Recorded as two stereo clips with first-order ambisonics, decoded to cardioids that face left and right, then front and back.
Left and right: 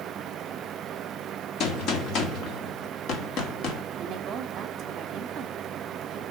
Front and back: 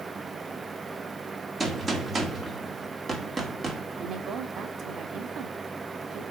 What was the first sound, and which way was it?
A gunshot, 115° left.